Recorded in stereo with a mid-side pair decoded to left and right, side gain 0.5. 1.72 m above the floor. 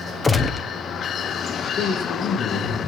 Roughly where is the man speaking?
Ahead left.